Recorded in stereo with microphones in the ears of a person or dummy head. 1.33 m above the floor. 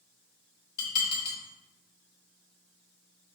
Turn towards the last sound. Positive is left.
turn(degrees=65)  # may be behind; listen again after turning